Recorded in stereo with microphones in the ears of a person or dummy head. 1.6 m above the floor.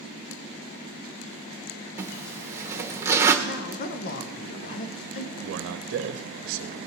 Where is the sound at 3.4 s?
50° left (ahead or behind), 0.8 m.